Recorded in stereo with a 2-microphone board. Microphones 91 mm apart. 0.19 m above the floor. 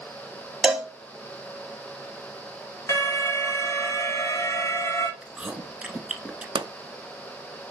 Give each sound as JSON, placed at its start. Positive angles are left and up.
{"t": 0.6, "sound": "a cowbell", "side_deg": -10, "distance_m": 0.9}
{"t": 2.9, "sound": "an alarm", "side_deg": 35, "distance_m": 1.1}
{"t": 5.2, "sound": "chewing", "side_deg": -15, "distance_m": 0.9}
{"t": 6.5, "sound": "a pop", "side_deg": -65, "distance_m": 0.5}